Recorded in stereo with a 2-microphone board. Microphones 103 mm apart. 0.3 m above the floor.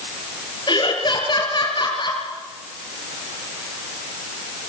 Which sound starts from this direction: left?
Laughter, at 0.7 s.